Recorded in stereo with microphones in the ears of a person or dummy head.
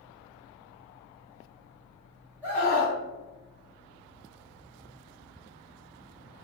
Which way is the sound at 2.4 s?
10° right (ahead or behind).